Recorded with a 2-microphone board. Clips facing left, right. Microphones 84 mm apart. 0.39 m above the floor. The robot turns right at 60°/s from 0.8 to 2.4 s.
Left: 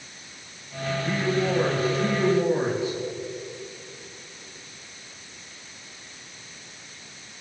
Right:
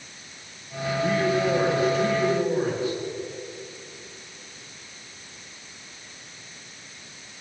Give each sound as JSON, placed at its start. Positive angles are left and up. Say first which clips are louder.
{"t": 1.0, "sound": "a man speaking", "louder": "right 3 dB", "azimuth_deg": -55, "distance_m": 6.5}